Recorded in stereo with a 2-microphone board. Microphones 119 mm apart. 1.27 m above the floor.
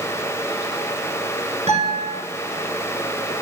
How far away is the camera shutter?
No camera shutter in this recording.